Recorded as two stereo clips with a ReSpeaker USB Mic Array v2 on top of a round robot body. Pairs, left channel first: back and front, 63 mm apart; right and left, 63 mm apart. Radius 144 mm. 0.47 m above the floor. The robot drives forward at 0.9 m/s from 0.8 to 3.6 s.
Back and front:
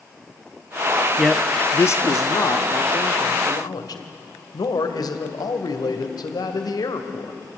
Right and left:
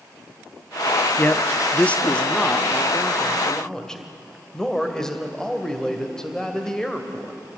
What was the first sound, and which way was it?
A man speaking, 75° right.